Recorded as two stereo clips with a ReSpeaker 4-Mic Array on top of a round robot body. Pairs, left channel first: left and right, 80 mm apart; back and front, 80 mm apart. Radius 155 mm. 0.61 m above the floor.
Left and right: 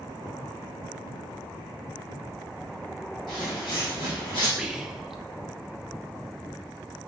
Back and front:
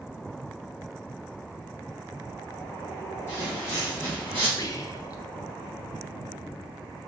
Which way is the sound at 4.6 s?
175° right.